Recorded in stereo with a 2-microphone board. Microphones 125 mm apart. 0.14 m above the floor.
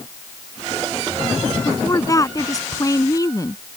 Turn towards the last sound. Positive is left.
turn(degrees=30)  # may be behind; listen again after turning